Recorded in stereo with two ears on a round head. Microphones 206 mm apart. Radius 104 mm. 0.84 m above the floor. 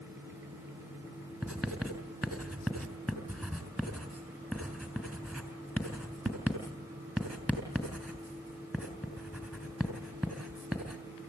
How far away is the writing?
About 4 m.